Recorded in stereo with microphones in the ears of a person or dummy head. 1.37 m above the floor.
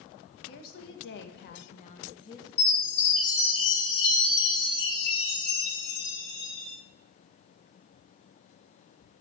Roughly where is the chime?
Left.